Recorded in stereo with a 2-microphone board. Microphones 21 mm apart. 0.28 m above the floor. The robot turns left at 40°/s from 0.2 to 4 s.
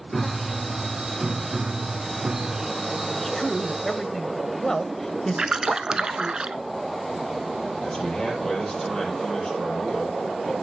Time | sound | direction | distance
0.1 | a piano | 10° left | 0.9 m
3.1 | a man speaking | 5° left (ahead or behind) | 0.9 m
5.4 | a splash | 35° right (ahead or behind) | 0.6 m
7.8 | a man speaking | 30° left (ahead or behind) | 7 m